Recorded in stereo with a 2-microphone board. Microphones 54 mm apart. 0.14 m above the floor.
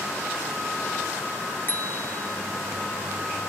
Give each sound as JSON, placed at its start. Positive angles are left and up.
{"t": 1.7, "sound": "a bicycle bell", "side_deg": 40}